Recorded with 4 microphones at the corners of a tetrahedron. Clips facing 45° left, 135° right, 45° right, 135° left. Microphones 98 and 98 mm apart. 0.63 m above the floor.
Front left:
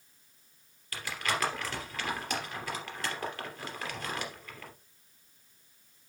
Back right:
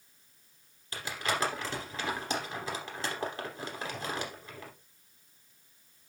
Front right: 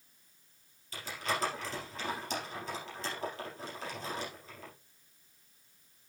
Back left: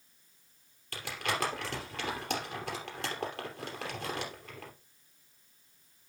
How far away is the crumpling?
About 3 m.